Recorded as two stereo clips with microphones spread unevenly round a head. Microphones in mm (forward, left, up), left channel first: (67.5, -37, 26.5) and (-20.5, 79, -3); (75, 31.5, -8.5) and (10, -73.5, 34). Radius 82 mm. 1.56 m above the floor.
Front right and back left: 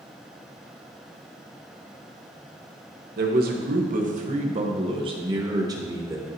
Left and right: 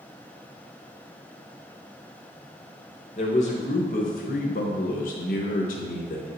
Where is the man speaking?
110° left, 1.4 m; by 6.3 s 55° left, 2.0 m.